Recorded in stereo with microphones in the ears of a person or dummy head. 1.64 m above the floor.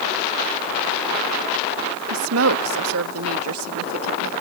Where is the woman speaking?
75° right (ahead or behind).